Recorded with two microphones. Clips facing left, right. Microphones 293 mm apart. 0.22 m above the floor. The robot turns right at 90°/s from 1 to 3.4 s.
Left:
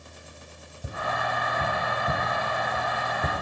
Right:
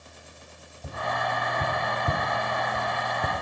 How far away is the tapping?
About 1.3 m.